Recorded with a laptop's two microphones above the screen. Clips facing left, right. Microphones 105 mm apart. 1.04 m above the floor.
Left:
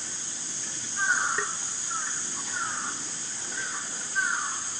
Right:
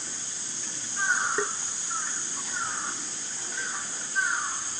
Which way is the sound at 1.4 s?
30° right (ahead or behind).